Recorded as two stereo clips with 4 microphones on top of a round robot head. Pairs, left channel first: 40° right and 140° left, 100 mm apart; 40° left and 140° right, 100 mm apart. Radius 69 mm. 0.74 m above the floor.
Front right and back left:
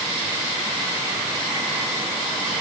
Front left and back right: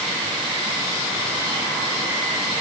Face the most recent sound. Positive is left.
No sound to turn to.